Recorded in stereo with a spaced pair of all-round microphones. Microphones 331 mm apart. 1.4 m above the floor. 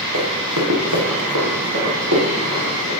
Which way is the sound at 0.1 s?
60° right (ahead or behind).